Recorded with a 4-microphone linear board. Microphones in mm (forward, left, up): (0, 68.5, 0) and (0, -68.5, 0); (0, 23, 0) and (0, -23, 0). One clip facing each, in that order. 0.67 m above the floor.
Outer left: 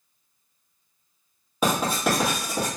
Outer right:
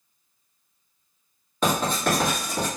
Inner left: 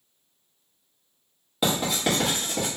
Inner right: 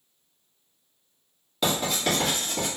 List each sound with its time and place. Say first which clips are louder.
1.6 s writing: even, inner left 1 dB; 10° left (ahead or behind), 1.0 m